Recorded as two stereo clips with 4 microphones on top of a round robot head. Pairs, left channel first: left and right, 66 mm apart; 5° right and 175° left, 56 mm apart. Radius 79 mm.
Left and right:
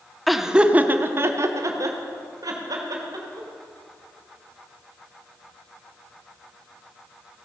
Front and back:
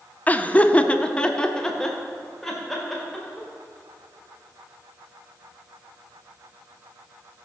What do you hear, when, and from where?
0.3 s laughter: straight ahead, 0.8 m; by 3.5 s 90° right, 2.5 m